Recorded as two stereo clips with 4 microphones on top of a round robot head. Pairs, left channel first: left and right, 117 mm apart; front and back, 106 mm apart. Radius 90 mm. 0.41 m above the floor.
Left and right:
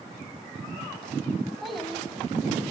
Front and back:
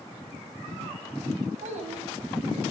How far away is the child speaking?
About 2.5 m.